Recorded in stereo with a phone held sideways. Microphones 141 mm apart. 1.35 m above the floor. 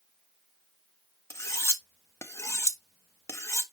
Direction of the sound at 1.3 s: 20° left (ahead or behind).